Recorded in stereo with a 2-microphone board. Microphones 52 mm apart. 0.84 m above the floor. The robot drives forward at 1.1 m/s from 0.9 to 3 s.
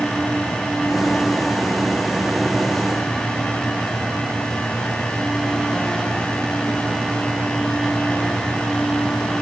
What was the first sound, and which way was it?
Only background noise.